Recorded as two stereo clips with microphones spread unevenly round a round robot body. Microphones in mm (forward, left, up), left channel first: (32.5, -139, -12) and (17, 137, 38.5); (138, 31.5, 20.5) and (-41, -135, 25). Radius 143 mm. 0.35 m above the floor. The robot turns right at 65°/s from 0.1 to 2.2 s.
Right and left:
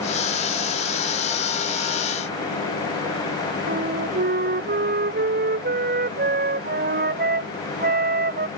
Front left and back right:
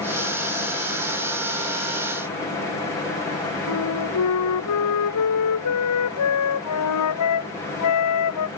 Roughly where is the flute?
Ahead left.